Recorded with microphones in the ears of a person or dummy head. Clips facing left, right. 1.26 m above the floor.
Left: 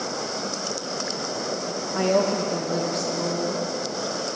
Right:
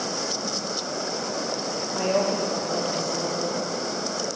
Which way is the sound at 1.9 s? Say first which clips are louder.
Left 3 dB; 15° left (ahead or behind).